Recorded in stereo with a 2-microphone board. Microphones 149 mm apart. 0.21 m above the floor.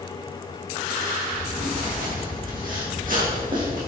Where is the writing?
65° right (ahead or behind), 6.5 m.